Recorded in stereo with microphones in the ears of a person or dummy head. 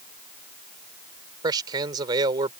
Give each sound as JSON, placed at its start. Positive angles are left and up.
{"t": 1.4, "sound": "a man speaking", "side_deg": -25}